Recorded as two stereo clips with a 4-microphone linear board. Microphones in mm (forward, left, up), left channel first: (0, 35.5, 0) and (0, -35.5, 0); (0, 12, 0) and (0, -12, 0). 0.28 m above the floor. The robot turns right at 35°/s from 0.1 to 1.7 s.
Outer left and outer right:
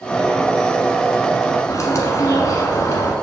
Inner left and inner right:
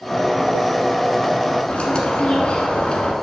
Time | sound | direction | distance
1.7 | a bird | 45° left (ahead or behind) | 1.4 m